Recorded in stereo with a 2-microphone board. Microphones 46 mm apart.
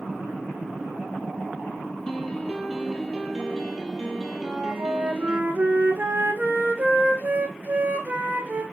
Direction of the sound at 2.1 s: 10° left (ahead or behind).